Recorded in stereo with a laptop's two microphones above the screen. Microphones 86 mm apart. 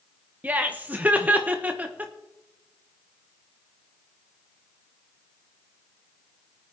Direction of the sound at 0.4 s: 20° right (ahead or behind).